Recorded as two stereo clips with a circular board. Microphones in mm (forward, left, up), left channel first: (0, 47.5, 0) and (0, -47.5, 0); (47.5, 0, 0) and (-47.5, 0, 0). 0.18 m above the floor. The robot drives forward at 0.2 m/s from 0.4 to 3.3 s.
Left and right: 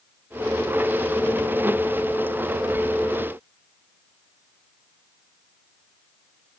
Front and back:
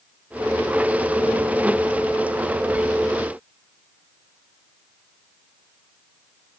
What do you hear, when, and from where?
Only background noise.